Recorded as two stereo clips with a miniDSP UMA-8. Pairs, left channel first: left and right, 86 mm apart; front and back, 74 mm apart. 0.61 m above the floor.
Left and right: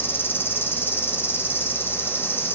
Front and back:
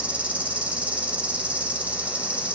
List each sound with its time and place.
0.0 s an insect: 130° left, 0.9 m